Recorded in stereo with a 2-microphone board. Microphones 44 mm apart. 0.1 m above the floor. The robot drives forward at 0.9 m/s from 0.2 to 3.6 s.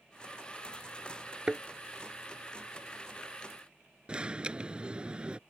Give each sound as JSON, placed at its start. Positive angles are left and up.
{"t": 1.5, "sound": "a thud", "side_deg": -20}
{"t": 4.1, "sound": "an alarm", "side_deg": -25}